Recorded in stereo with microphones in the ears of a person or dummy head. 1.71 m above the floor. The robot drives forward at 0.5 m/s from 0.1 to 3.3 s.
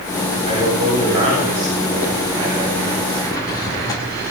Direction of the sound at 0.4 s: 35° right (ahead or behind).